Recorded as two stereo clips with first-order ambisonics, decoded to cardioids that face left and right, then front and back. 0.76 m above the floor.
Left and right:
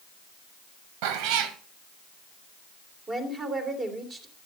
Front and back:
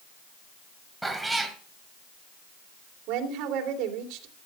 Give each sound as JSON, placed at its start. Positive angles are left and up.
{"t": 1.0, "sound": "a cat meowing", "azimuth_deg": -95, "distance_m": 1.8}
{"t": 3.1, "sound": "a woman speaking", "azimuth_deg": -155, "distance_m": 3.0}